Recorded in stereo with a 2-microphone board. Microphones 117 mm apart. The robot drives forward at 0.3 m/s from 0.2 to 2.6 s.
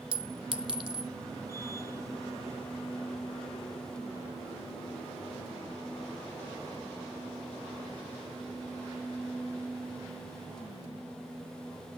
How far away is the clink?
About 1.4 m.